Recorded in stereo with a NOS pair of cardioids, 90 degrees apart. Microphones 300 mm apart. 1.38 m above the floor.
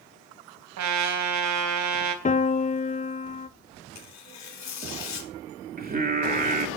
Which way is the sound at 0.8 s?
65° right.